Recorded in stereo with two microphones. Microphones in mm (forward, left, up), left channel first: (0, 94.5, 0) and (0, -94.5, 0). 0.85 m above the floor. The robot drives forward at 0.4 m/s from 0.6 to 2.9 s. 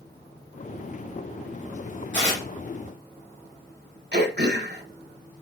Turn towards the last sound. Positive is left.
turn(degrees=-60)  # may be behind; listen again after turning